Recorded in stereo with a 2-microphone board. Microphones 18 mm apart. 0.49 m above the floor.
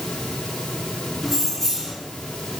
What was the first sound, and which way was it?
Keys jangling, 15° left (ahead or behind).